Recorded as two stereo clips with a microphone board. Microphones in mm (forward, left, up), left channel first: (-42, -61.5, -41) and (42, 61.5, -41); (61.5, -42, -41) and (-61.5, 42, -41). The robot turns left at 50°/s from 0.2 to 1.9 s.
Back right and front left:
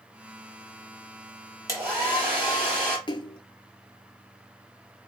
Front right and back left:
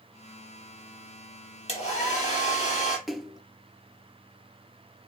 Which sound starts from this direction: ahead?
A hair dryer, at 1.7 s.